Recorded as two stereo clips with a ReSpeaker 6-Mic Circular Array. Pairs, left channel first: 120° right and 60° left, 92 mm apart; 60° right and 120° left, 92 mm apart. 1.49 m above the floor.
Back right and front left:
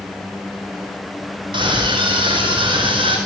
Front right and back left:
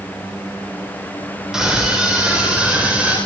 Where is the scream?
35° left, 4.5 m; by 3.2 s 40° left, 5.5 m.